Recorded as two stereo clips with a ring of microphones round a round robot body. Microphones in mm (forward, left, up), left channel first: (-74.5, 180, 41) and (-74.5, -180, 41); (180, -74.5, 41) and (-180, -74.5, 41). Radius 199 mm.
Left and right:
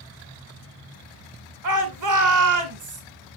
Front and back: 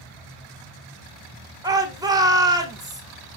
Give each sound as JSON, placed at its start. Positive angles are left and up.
{"t": 1.6, "sound": "a shout", "azimuth_deg": -105, "distance_m": 2.0}